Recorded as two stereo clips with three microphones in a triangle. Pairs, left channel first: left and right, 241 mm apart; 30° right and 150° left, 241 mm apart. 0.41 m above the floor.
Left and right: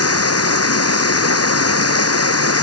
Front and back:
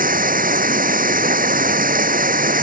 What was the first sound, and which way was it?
Running water, 95° left.